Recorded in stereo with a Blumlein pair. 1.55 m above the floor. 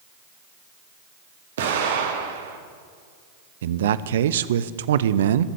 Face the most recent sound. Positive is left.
turn(degrees=-60)